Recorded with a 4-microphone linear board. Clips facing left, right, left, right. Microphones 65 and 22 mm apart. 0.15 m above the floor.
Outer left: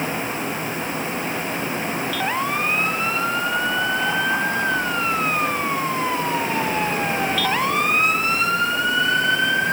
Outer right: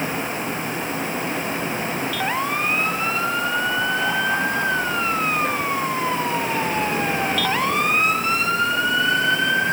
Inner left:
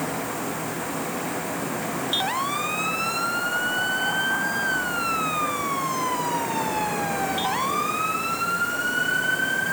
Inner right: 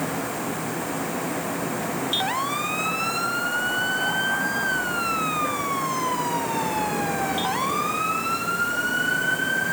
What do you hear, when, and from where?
Only background noise.